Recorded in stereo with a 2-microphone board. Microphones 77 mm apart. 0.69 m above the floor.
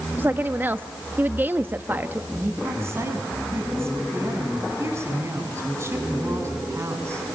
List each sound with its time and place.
0.2 s a woman speaking: 25° right (ahead or behind), 0.8 m
2.3 s a woman speaking: 35° right (ahead or behind), 6.5 m